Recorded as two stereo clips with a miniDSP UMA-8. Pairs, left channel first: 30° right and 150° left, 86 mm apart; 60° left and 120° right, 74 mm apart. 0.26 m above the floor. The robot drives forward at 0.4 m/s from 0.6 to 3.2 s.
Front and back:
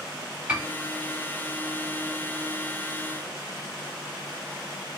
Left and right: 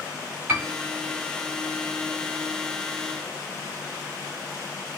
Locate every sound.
0.5 s a piano: 150° right, 1.0 m; by 0.7 s 155° right, 1.0 m